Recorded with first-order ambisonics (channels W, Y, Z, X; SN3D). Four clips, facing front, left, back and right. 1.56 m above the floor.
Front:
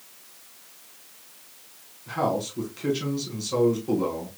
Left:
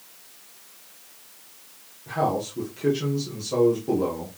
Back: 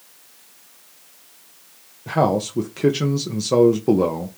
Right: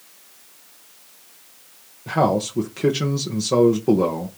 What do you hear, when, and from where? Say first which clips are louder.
2.1 s a man speaking: right 6 dB, back 7 dB; 150° right, 1.2 m